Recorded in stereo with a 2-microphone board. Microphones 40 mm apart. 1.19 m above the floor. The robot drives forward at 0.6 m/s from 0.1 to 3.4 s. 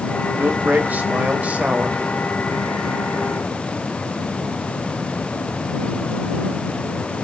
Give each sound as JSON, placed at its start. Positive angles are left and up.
{"t": 0.4, "sound": "a man speaking", "side_deg": -60, "distance_m": 1.6}